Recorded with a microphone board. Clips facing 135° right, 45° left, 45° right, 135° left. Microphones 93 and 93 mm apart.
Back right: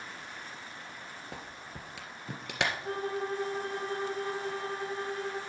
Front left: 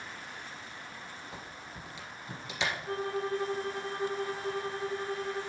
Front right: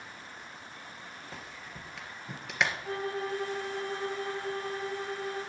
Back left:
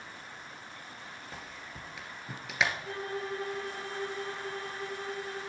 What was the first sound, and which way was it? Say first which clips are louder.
A clap: back right 1 dB, even; 135° right.